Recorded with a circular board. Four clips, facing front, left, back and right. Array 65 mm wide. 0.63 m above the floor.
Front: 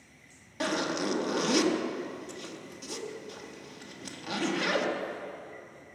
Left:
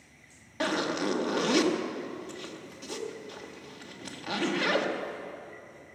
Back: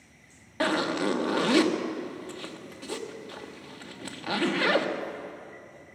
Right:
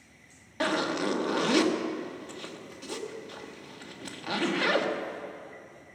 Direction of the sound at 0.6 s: 165° right.